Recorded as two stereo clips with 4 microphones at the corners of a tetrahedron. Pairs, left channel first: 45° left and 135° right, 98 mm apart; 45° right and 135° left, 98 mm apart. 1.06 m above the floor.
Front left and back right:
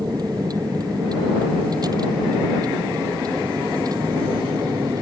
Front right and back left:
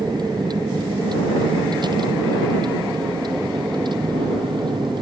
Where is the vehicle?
Straight behind; by 5.0 s 175° left.